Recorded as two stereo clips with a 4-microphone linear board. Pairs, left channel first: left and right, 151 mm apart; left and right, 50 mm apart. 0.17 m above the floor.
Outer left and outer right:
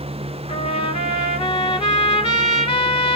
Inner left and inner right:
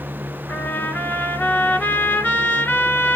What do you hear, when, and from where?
0.5 s a trumpet: 35° left (ahead or behind), 0.7 m